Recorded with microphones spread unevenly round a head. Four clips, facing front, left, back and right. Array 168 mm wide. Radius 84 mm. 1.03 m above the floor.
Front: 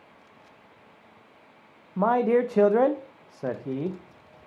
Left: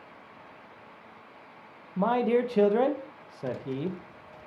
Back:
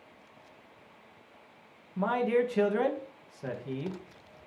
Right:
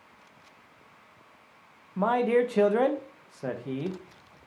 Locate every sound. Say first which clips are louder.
2.0 s a man speaking: right 1 dB, front 6 dB; 5° right, 1.0 m